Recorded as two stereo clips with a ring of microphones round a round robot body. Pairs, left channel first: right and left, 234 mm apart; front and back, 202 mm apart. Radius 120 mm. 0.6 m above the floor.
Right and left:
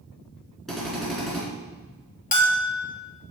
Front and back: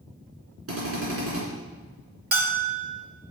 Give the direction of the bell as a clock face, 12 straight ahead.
5 o'clock.